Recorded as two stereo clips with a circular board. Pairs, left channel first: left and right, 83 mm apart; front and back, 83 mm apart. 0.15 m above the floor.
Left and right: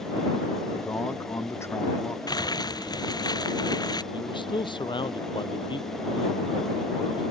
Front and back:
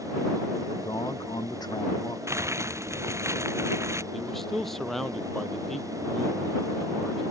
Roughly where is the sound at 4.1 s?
Left.